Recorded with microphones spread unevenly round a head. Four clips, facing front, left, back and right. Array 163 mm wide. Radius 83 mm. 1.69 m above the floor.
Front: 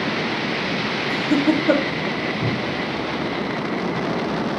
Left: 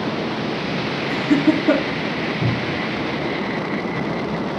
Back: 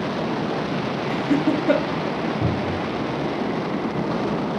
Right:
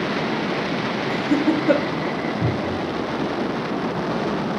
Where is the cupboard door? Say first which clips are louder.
Even, even; 170° left, 5 m.